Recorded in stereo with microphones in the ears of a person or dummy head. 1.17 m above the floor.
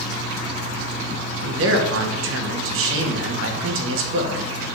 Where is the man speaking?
65° right (ahead or behind), 0.9 m.